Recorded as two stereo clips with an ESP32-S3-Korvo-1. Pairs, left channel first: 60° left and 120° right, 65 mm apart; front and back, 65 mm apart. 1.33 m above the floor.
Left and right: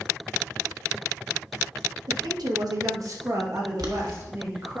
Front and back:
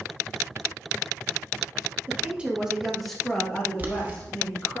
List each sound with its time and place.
2.1 s a woman speaking: 115° right, 1.1 m; by 4.8 s 65° right, 2 m
3.8 s boiling: 120° right, 1.0 m